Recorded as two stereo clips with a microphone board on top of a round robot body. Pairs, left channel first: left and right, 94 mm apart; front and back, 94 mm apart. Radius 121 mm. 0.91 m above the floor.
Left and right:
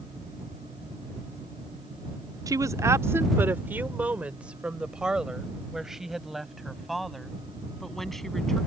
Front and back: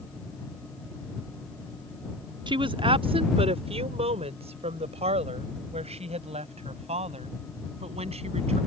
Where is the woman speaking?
145° right; by 8.6 s 175° left.